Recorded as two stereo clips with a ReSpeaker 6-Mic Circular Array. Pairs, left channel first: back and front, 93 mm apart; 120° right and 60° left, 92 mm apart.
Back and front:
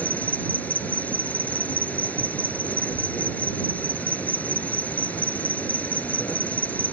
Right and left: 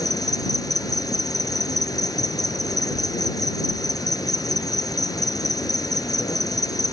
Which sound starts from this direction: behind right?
An insect, at 0.0 s.